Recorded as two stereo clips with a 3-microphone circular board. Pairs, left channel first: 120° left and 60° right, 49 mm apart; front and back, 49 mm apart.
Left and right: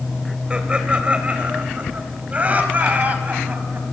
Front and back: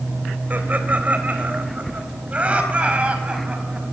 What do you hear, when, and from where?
0.5 s laughter: 130° right, 3 m; by 3.8 s 115° right, 5 m